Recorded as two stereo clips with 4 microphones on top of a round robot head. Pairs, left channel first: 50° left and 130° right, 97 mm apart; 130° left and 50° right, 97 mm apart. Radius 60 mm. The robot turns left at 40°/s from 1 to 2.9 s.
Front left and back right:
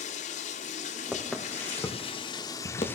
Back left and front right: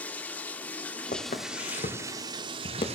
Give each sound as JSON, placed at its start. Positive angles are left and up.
{"t": 0.0, "sound": "running water", "azimuth_deg": 55, "distance_m": 1.2}
{"t": 1.1, "sound": "footsteps", "azimuth_deg": 140, "distance_m": 3.5}